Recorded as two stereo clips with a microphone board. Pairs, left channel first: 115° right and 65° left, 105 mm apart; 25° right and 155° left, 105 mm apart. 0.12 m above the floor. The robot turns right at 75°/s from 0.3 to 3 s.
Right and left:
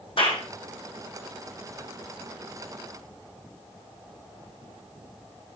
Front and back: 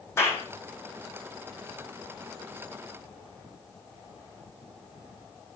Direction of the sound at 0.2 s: 85° right.